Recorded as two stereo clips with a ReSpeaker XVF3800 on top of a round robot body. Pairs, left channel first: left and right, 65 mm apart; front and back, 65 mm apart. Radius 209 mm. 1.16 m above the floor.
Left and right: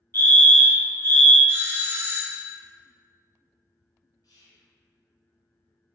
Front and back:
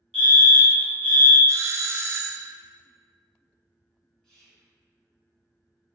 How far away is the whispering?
About 1.3 m.